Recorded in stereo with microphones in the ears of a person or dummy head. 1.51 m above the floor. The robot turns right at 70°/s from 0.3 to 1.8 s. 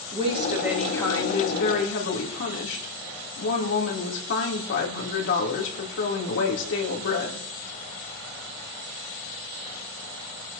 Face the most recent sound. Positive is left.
turn(degrees=75)